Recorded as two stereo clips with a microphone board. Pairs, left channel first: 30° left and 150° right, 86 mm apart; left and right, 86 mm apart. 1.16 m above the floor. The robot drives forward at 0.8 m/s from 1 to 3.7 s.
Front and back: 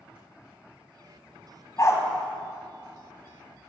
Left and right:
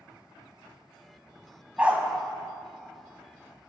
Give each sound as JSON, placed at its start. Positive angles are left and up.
{"t": 1.8, "sound": "a dog barking", "azimuth_deg": -15, "distance_m": 2.0}